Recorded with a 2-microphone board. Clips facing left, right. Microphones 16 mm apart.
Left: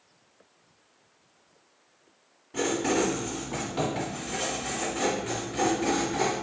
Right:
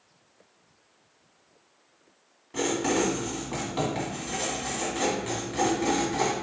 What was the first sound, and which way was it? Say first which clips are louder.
Writing: even; 20° right (ahead or behind).